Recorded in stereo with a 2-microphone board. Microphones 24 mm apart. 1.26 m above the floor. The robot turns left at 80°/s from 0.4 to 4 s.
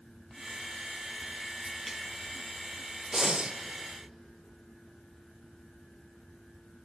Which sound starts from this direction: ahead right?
Breathing, at 3.1 s.